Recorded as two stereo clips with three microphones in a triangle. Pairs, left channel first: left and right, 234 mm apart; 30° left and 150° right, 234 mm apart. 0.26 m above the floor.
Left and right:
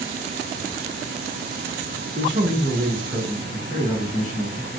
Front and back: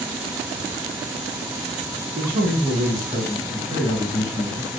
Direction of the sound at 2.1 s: 110° right.